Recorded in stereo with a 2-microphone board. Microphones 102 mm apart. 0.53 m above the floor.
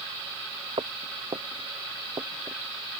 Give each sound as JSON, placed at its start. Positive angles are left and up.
{"t": 0.8, "sound": "footsteps", "side_deg": -70}